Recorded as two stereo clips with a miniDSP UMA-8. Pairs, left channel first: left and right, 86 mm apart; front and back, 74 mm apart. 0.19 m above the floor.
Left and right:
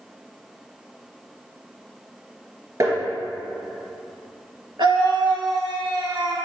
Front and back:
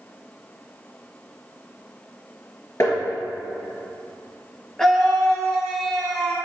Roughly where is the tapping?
Ahead right.